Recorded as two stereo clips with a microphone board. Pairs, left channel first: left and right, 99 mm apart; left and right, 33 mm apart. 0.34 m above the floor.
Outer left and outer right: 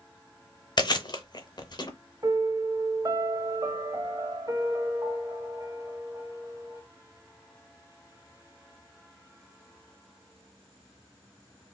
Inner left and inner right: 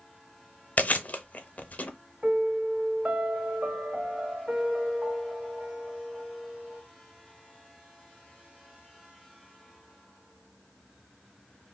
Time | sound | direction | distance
0.8 | chewing | 50° left (ahead or behind) | 0.6 m
2.2 | a piano | 40° right (ahead or behind) | 0.6 m